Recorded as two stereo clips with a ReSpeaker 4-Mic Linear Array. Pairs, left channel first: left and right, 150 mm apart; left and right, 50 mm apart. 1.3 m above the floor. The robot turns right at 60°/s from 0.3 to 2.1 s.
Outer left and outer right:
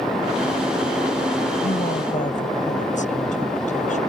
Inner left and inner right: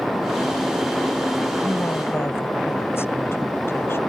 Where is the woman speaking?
95° left; by 4.0 s 125° left.